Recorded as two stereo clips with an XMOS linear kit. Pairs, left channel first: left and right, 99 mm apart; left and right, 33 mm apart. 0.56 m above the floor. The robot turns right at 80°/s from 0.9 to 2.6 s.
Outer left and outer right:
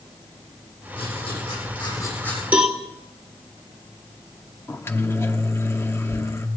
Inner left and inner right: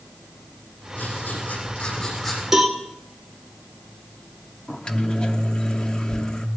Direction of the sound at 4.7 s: 25° left (ahead or behind).